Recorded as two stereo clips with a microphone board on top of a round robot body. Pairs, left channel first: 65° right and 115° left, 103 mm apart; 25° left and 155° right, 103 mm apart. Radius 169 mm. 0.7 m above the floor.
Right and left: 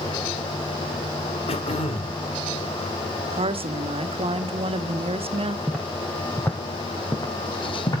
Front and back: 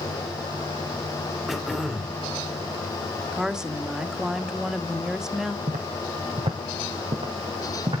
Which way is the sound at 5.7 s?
155° right.